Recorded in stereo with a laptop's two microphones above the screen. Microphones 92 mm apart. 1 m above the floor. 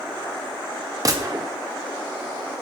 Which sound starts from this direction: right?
A gunshot, at 1.1 s.